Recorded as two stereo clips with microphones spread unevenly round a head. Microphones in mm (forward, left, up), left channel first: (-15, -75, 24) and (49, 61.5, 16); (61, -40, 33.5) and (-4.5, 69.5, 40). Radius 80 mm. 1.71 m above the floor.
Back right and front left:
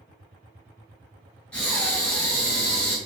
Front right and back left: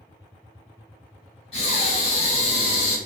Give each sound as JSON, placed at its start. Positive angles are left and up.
{"t": 1.5, "sound": "breathing", "azimuth_deg": -40, "distance_m": 1.8}